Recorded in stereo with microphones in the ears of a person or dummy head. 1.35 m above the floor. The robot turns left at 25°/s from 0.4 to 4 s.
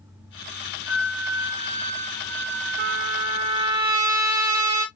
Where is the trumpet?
120° right, 1.0 m; by 4.8 s 150° right, 1.0 m.